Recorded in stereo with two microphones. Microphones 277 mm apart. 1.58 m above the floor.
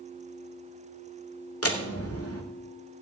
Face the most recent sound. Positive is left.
turn(degrees=55)  # may be behind; listen again after turning